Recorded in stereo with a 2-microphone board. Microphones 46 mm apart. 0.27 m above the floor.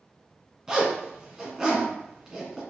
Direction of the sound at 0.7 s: 5° right (ahead or behind).